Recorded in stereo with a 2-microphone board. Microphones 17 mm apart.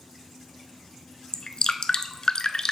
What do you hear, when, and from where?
1.3 s dripping: 50° left (ahead or behind), 0.5 m